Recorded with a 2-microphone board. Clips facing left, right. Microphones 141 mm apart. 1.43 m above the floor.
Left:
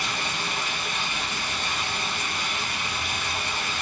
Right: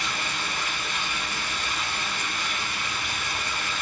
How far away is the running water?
About 1.3 m.